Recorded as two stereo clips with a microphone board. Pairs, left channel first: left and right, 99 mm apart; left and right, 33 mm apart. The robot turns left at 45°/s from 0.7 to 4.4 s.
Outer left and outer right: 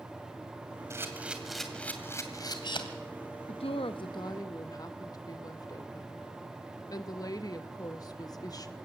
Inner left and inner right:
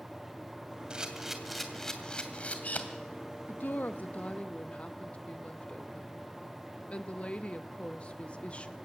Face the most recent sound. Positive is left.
turn(degrees=40)